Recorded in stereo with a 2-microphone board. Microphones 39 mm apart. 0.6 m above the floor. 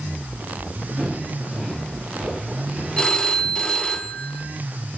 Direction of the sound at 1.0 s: Centre (ahead or behind).